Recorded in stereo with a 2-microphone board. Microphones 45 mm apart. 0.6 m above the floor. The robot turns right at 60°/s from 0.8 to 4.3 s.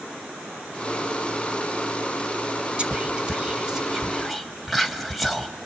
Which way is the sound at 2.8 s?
25° right (ahead or behind).